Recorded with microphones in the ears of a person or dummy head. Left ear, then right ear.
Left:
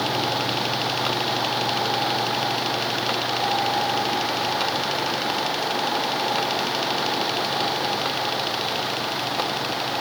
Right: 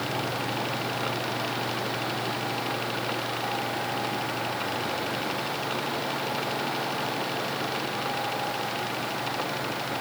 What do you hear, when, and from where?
Only background noise.